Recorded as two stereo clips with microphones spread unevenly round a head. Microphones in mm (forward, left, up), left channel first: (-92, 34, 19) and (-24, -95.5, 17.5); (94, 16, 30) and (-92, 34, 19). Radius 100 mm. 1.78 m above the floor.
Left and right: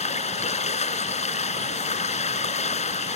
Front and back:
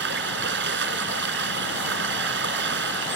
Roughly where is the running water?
Behind left.